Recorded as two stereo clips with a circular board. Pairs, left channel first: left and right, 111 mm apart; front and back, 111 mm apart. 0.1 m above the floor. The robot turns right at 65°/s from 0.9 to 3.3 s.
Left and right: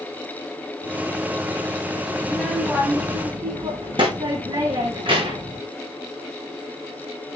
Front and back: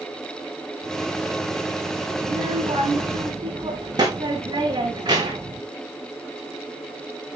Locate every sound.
2.2 s a child speaking: 160° left, 4.5 m; by 5.6 s 130° right, 4.5 m